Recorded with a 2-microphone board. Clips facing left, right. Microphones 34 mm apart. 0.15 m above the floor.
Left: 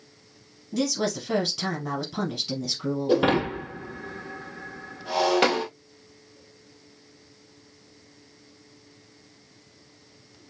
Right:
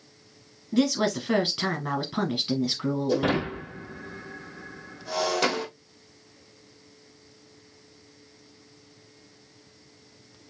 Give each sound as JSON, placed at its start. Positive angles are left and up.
{"t": 0.7, "sound": "a woman speaking", "side_deg": -25, "distance_m": 1.4}
{"t": 3.1, "sound": "breaking glass", "side_deg": 35, "distance_m": 1.9}